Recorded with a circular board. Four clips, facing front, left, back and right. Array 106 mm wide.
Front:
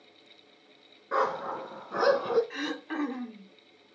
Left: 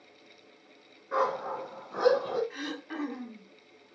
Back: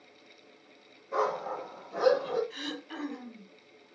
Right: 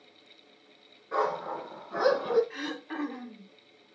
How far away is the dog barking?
About 3 m.